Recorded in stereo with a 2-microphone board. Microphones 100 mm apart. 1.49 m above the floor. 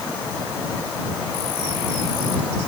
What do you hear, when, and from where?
Only background noise.